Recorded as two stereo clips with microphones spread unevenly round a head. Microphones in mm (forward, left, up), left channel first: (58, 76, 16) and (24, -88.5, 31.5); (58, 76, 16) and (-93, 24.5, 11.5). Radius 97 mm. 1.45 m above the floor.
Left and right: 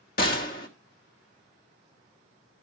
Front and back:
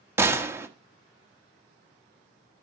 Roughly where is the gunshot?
Behind left.